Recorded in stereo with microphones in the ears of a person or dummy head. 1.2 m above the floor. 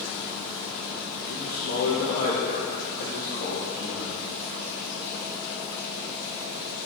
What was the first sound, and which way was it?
A man speaking, 50° left (ahead or behind).